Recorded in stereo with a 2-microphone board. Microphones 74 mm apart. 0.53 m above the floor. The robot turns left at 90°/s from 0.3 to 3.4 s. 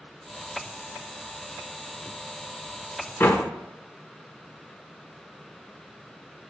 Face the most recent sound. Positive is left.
turn(degrees=45)  # may be behind; listen again after turning